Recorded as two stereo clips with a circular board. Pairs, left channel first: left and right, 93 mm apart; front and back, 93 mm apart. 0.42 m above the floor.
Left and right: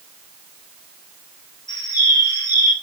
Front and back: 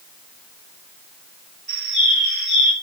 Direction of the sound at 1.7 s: 95° left.